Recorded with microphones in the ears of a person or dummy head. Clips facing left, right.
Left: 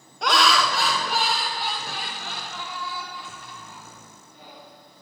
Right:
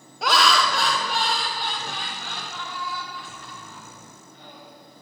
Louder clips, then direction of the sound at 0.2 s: Even; centre (ahead or behind).